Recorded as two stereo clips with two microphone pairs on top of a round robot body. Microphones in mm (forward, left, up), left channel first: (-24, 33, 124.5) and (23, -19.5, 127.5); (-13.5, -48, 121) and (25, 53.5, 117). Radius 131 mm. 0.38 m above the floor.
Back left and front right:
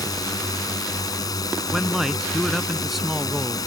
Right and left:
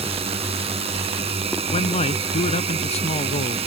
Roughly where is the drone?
Left.